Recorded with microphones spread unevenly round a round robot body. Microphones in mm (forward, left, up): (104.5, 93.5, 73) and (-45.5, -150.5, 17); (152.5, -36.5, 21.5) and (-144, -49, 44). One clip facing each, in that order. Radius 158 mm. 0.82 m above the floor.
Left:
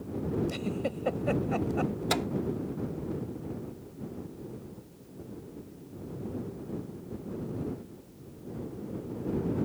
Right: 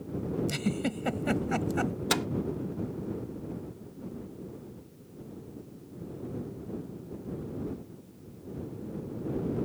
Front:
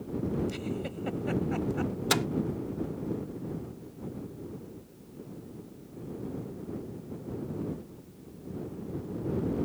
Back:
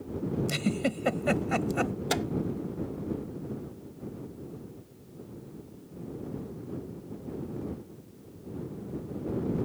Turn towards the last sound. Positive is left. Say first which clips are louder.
# even, front 3 dB
turn(degrees=-65)